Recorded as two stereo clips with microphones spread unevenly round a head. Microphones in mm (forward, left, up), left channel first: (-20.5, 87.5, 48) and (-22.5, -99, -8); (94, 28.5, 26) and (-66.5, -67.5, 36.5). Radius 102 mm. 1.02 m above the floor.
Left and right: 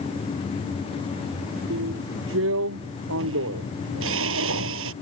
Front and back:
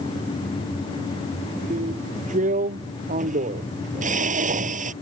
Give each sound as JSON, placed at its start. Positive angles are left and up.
{"t": 1.7, "sound": "a drill", "azimuth_deg": -100}